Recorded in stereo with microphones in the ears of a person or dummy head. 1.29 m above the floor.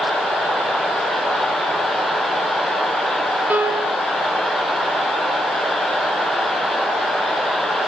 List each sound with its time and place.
3.5 s a piano: 10° right (ahead or behind), 1.8 m